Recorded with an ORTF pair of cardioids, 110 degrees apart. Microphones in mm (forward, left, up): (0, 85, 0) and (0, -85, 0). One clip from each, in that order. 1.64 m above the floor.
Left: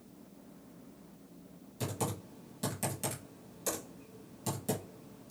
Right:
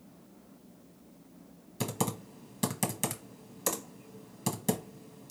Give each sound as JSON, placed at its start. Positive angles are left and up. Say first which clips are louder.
{"t": 1.8, "sound": "typing on a keyboard", "louder": "right 3 dB", "azimuth_deg": -45, "distance_m": 0.9}